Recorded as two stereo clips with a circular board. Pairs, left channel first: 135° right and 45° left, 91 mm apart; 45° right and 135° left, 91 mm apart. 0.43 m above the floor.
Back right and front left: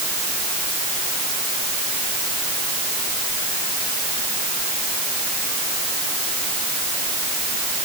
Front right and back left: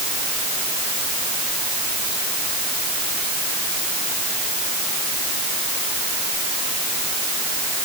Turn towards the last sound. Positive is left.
No sound to turn to.